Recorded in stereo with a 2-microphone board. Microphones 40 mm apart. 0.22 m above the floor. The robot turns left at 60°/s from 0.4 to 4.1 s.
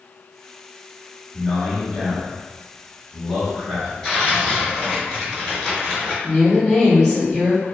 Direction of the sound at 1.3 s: 5° left (ahead or behind).